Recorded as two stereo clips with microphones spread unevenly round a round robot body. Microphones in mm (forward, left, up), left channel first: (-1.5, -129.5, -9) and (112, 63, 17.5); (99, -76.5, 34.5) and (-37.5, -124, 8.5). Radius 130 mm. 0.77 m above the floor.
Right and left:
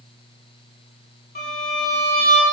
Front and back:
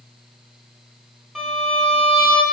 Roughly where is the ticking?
I don't hear ticking.